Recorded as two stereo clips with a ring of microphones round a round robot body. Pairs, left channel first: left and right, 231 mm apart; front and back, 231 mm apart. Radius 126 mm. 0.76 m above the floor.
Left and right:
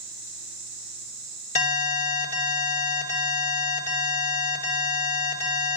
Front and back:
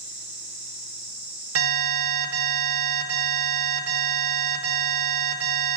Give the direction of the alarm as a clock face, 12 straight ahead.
7 o'clock.